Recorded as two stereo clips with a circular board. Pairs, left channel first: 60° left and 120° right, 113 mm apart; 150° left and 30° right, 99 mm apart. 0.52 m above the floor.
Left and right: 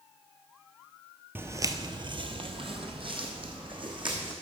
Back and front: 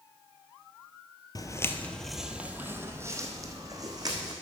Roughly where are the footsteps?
Behind.